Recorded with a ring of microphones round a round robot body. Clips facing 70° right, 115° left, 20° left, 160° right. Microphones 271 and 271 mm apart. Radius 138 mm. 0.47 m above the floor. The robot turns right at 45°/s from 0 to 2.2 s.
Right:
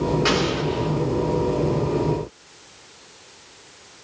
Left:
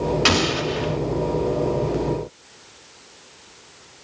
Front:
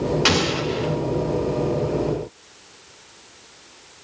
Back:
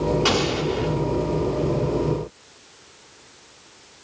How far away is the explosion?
About 1.0 m.